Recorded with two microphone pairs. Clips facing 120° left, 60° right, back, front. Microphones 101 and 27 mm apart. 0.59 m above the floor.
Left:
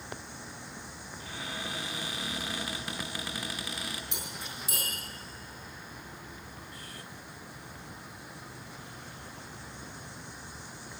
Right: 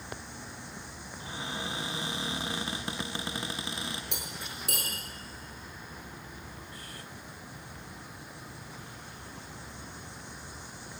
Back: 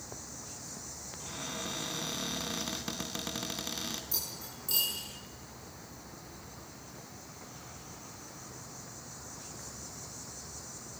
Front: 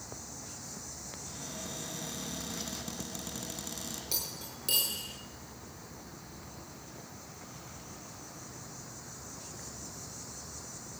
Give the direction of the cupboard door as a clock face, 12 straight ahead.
4 o'clock.